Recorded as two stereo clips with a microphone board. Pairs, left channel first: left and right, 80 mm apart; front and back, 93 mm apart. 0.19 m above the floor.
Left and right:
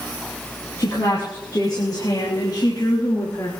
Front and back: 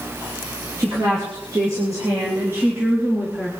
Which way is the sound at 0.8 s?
130° left.